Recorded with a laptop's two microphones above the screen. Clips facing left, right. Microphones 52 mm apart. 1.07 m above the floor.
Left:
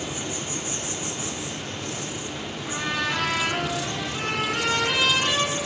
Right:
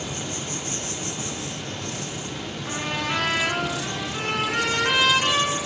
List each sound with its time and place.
0.0 s an insect: 10° left (ahead or behind), 0.9 m
2.6 s a trumpet: 35° right (ahead or behind), 1.7 m